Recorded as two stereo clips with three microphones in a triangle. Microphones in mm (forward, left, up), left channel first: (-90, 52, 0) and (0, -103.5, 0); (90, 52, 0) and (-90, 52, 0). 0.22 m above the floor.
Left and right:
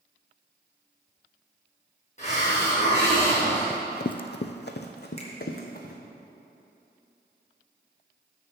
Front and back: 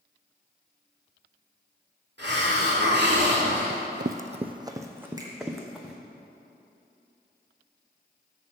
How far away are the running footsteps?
About 0.5 m.